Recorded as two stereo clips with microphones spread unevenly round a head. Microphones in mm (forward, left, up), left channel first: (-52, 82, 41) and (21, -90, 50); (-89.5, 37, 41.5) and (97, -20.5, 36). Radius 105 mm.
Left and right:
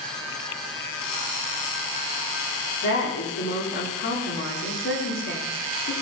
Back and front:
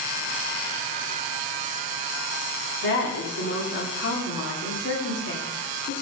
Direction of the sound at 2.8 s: 135° left.